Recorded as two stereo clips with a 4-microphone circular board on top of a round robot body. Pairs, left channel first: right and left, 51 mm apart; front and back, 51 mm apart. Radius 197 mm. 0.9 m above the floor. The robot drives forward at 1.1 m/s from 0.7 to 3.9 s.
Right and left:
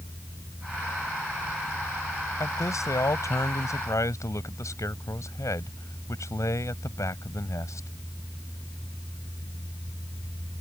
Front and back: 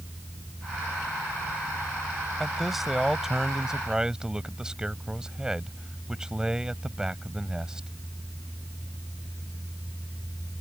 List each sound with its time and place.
2.4 s a man speaking: 90° right; by 7.9 s 100° right